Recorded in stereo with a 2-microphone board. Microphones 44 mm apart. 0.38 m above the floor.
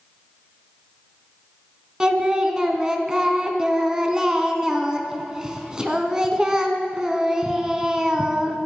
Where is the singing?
15° right (ahead or behind), 0.8 m.